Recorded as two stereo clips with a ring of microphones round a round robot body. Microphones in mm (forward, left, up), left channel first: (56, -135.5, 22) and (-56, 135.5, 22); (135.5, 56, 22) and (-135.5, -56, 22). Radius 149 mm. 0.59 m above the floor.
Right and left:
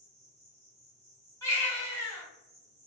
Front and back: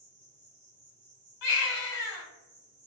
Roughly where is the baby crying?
Ahead.